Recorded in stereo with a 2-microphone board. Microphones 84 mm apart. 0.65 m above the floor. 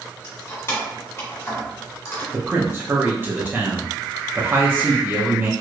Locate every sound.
0.2 s keys jangling: 35° left (ahead or behind), 1.3 m
2.3 s a man speaking: 25° right (ahead or behind), 0.5 m